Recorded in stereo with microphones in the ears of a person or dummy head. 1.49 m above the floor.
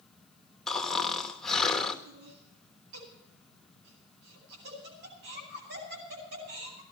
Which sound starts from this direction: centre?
Snoring, at 0.7 s.